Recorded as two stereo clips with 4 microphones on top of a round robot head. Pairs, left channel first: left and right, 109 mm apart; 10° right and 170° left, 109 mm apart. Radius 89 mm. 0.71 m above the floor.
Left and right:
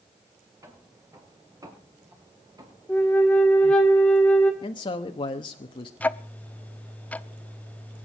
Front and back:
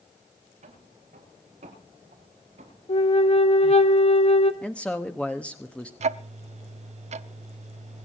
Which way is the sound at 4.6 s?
70° left.